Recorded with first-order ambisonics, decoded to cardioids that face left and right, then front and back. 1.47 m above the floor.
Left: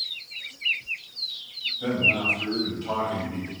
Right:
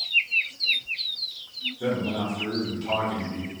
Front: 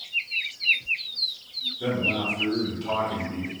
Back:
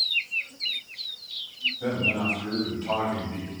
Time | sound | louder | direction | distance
1.8 | a man speaking | left 7 dB, front 2 dB | 45° right | 1.9 m